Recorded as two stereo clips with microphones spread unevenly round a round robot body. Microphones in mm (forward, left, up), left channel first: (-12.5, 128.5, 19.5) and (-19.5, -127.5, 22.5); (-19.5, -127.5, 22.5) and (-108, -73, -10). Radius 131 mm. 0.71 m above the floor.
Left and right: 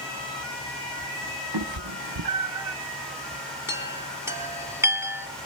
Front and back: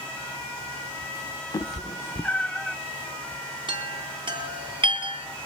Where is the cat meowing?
80° right, 0.8 m; by 2.8 s 120° right, 0.9 m.